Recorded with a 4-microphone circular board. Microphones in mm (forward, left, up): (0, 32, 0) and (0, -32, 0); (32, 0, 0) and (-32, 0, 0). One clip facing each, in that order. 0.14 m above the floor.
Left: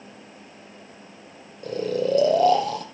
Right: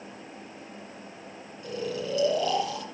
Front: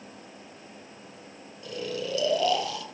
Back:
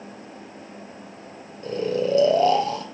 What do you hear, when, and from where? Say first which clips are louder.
1.6 s snoring: left 8 dB, back 9 dB; 125° left, 2.5 m